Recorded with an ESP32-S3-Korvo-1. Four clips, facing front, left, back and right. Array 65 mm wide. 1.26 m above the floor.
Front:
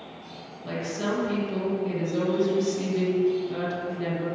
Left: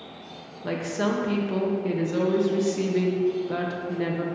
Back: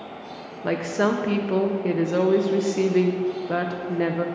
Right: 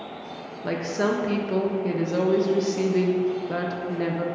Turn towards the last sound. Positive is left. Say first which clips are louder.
# right 2 dB, back 7 dB
turn(degrees=-175)